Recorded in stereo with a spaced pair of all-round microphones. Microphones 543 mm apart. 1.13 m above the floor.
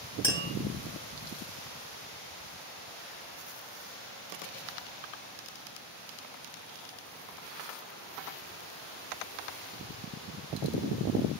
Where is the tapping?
10° left (ahead or behind), 2.5 m.